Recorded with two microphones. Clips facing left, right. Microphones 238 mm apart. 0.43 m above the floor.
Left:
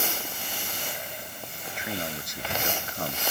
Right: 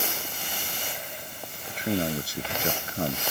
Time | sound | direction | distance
1.7 | a man speaking | 40° right (ahead or behind) | ?